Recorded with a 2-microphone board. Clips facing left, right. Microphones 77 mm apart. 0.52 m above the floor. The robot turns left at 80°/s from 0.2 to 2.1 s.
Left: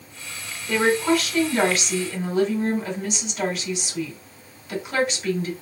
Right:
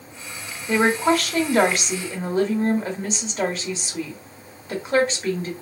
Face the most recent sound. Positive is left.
turn(degrees=-135)